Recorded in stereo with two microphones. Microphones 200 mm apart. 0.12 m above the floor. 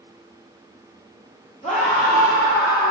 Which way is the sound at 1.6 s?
35° left (ahead or behind).